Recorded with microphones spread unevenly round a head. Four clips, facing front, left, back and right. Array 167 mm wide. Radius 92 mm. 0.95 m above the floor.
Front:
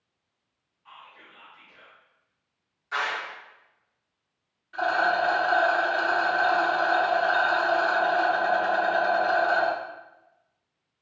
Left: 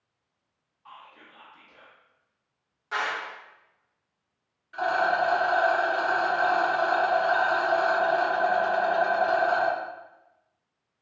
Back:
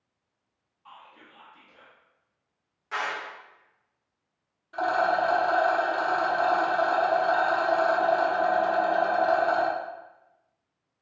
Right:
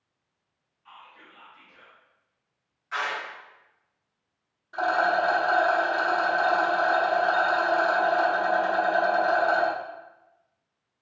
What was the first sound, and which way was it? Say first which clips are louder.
Whispering: left 1 dB, even; 115° left.